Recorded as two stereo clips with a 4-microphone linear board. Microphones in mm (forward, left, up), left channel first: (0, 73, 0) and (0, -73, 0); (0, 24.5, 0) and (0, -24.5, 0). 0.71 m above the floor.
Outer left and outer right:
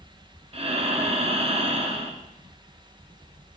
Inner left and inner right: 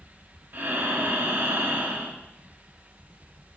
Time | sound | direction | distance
0.5 | breathing | 45° right (ahead or behind) | 0.6 m